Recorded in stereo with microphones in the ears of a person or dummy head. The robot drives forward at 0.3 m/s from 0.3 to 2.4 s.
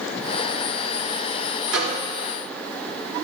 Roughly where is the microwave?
Right.